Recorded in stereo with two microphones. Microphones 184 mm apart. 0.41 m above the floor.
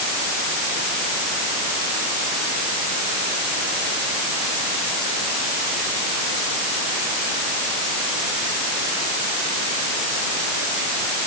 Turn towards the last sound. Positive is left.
No sound to turn to.